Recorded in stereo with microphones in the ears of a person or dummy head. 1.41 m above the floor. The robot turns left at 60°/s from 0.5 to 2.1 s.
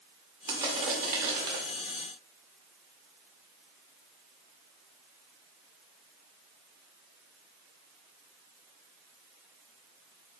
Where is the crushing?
10° right, 1.4 m; by 1.6 s 80° right, 1.4 m.